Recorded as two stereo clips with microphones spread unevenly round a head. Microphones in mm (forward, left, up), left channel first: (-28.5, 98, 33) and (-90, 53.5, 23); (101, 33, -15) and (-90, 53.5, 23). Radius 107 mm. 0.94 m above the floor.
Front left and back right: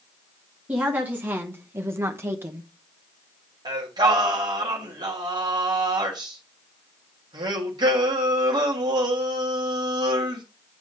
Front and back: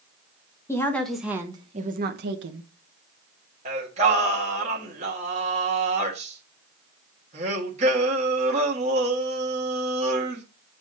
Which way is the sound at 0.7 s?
75° right.